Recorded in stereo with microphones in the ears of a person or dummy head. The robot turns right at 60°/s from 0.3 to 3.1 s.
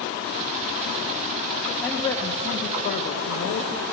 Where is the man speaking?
10° left, 0.7 m; by 3.8 s 85° left, 0.7 m.